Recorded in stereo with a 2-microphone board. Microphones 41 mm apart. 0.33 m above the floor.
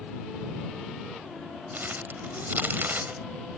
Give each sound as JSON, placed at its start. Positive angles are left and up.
{"t": 1.7, "sound": "crumpling", "side_deg": -55}